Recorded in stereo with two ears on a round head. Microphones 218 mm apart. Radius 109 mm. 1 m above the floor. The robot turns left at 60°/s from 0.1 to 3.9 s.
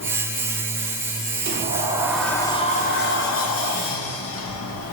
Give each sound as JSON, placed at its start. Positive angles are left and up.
{"t": 1.4, "sound": "a sliding door", "azimuth_deg": -135, "distance_m": 0.7}